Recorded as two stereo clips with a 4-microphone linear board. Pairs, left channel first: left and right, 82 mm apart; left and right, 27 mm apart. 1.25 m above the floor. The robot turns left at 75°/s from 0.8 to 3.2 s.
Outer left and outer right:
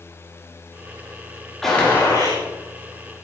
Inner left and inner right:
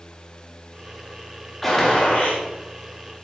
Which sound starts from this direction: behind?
A gunshot, at 1.6 s.